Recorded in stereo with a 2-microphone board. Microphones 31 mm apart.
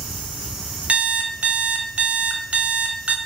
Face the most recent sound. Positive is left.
turn(degrees=-50)  # may be behind; listen again after turning